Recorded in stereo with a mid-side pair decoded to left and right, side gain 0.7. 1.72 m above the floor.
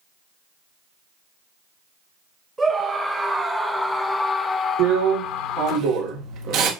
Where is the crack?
I don't hear a crack.